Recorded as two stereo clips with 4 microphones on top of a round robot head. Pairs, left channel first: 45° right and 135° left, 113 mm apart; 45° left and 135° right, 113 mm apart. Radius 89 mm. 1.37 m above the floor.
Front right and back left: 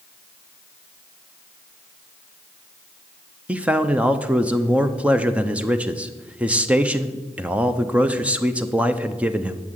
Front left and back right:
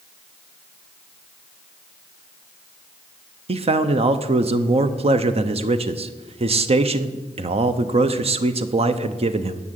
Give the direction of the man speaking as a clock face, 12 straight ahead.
5 o'clock.